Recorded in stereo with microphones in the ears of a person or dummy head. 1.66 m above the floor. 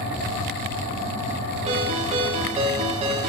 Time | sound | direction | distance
1.7 | a ringtone | 35° right (ahead or behind) | 1.3 m